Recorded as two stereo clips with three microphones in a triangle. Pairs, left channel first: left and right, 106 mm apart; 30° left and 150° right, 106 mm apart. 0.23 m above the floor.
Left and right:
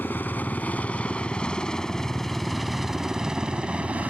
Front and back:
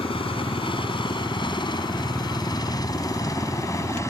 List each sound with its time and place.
0.0 s a helicopter: 20° left; by 4.1 s 20° right